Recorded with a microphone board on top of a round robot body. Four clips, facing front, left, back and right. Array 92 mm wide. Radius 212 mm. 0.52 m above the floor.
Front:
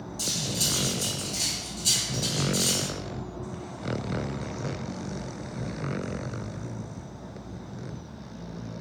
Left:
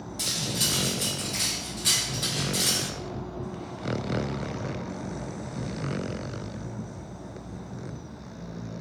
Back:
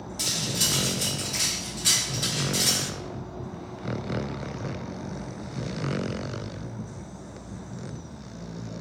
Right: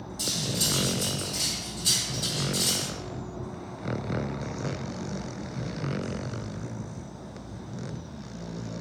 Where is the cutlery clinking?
145° left, 1.1 m.